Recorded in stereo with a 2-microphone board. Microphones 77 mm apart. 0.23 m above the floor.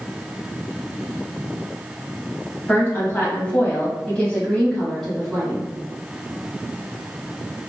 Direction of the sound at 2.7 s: 30° left (ahead or behind).